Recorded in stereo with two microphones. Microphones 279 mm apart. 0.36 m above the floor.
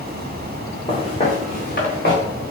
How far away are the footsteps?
About 1.5 m.